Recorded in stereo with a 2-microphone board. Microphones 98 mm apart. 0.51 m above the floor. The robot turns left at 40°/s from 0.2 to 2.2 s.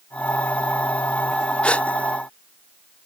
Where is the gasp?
10° left (ahead or behind); by 1.9 s 15° left (ahead or behind).